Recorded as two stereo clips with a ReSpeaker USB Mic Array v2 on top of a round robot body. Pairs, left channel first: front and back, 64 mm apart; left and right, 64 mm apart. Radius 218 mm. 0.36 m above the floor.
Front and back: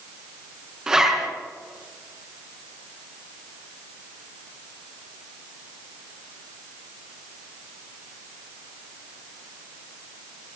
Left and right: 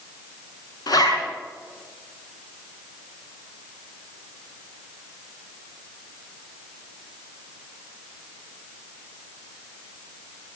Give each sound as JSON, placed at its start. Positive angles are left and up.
{"t": 0.9, "sound": "a zipper", "azimuth_deg": 105, "distance_m": 4.5}